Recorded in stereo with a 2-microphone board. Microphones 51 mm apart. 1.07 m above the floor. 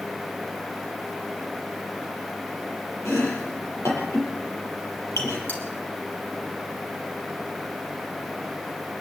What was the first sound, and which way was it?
Chopping, 75° left (ahead or behind).